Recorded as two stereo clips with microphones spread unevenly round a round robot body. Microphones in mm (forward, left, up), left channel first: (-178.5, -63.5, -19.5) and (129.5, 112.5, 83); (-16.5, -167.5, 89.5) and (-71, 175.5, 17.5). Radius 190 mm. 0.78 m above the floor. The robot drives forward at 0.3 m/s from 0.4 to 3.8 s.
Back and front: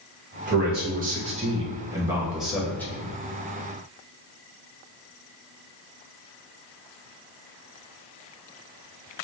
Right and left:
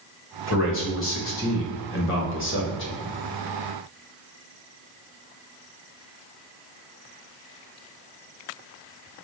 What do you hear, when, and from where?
0.5 s a man speaking: 35° right, 1.1 m; by 3.1 s 125° right, 0.9 m